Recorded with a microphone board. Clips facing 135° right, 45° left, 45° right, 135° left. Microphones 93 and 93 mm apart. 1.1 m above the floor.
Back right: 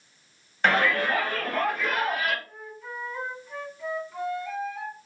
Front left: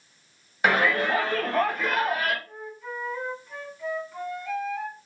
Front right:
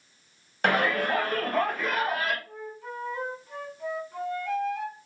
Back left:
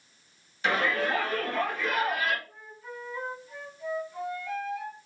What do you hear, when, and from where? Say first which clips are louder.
0.6 s a shout: front left 1 dB, front right 2 dB; 35° right, 1.0 m; by 2.4 s straight ahead, 1.7 m
2.5 s a flute: front left 3 dB, front right 6 dB; 45° right, 0.9 m